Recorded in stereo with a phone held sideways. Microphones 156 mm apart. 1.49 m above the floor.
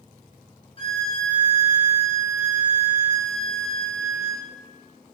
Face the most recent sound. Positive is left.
turn(degrees=35)  # may be behind; listen again after turning